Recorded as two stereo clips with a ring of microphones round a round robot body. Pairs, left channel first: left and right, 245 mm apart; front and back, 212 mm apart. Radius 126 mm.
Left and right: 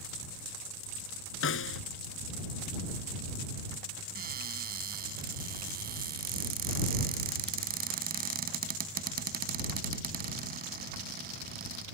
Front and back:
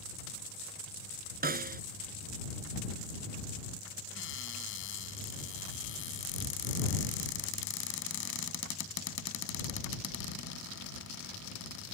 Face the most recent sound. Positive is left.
turn(degrees=-35)